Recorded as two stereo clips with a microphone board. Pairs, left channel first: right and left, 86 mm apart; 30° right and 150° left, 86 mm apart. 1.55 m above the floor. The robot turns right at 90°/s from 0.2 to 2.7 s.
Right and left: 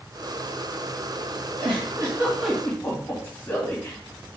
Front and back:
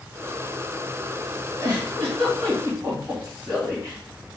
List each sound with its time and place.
1.6 s a giggle: 105° left, 2 m; by 4.0 s 155° right, 2 m